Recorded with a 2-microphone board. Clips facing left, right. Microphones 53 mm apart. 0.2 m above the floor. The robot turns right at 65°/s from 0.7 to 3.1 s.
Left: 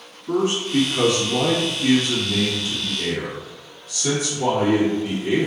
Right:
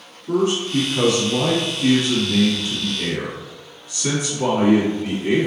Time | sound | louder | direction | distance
0.3 | a man speaking | right 1 dB | 140° left | 1.7 m